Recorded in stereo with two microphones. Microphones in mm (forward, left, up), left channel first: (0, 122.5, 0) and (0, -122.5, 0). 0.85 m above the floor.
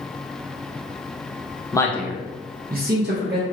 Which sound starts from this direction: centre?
A man speaking, at 1.7 s.